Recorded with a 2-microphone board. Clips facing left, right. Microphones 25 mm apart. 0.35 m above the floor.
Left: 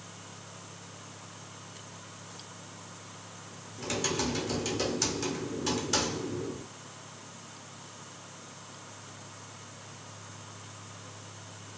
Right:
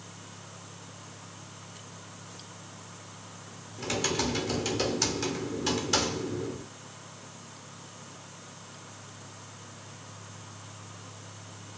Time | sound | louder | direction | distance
3.8 | typing on a keyboard | right 2 dB | 20° right (ahead or behind) | 1.2 m